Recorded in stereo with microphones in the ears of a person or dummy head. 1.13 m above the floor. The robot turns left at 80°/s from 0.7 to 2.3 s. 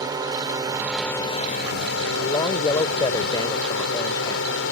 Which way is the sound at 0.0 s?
160° right.